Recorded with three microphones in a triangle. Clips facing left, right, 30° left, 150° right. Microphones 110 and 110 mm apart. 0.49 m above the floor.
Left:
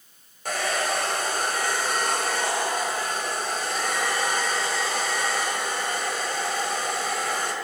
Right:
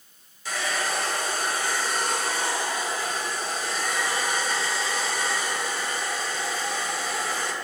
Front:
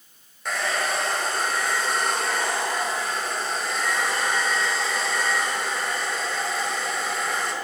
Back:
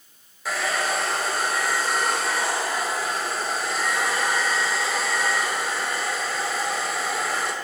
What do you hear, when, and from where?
0.5 s a hair dryer: 125° left, 1.8 m